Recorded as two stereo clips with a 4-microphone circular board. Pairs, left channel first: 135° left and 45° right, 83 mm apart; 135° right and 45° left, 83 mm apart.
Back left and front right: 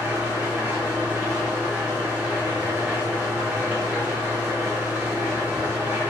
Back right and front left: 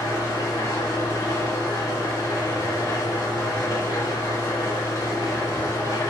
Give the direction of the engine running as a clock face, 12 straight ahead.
4 o'clock.